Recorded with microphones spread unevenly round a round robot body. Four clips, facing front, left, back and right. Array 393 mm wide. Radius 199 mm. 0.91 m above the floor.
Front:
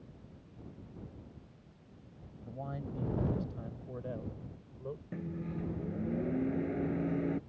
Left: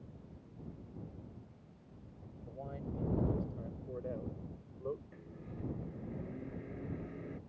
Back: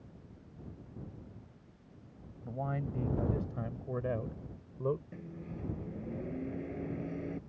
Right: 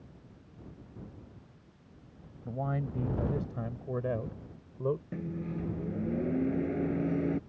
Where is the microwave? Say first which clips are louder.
Right 13 dB, front 5 dB; 60° right.